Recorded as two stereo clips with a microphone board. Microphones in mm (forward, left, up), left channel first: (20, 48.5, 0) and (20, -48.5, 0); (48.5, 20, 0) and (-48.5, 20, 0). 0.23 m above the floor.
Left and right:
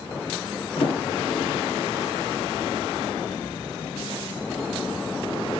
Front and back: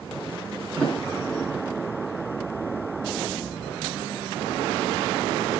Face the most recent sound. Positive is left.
turn(degrees=80)